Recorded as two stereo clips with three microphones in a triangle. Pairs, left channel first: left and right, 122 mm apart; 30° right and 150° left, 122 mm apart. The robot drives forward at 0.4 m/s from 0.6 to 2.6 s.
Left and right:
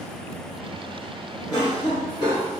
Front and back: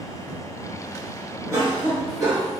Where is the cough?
110° left, 1.2 m; by 2.5 s 135° left, 1.4 m.